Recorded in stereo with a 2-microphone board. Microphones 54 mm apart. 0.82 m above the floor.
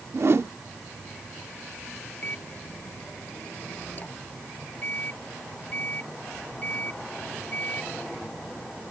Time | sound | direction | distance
0.1 | a whoosh | 55° right (ahead or behind) | ?
2.2 | a microwave | 35° left (ahead or behind) | ?